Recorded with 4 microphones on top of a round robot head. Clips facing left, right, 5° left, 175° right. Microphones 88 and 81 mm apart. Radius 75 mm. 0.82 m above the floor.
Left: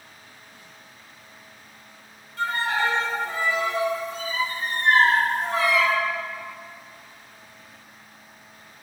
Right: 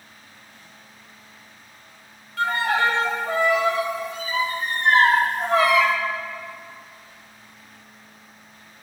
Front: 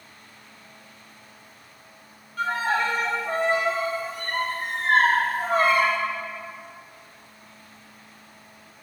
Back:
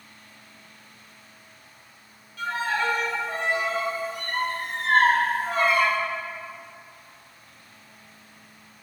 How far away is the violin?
About 1.5 m.